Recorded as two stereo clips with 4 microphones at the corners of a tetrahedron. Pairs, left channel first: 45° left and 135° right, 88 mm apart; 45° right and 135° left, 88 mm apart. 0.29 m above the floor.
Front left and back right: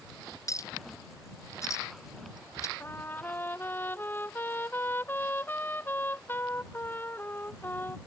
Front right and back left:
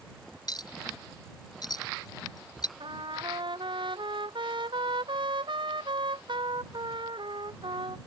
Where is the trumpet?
110° left.